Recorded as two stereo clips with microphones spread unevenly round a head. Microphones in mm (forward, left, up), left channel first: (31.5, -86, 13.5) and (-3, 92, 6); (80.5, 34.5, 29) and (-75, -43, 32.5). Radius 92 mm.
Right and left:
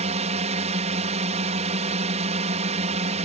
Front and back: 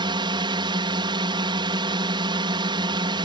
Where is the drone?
145° left.